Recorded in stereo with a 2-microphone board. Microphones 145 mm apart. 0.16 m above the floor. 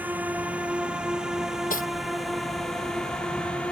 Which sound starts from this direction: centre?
A drone, at 0.0 s.